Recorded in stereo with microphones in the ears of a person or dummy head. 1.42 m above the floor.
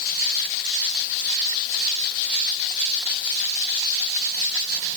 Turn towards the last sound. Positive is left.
No sound to turn to.